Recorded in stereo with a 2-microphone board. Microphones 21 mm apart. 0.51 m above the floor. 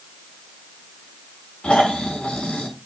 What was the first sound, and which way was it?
Snoring, 75° left (ahead or behind).